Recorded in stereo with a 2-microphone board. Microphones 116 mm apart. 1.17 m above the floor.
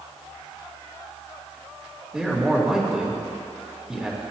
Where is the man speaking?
5° right (ahead or behind), 3.5 m.